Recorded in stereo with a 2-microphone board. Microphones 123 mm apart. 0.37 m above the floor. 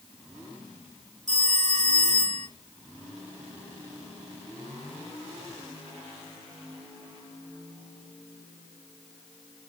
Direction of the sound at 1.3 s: 75° right (ahead or behind).